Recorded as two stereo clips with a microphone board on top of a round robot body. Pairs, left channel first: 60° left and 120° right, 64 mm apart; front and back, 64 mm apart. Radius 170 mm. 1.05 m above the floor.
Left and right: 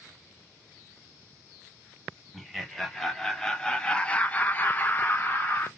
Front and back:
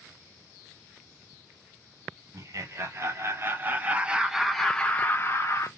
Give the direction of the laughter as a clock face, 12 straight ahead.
7 o'clock.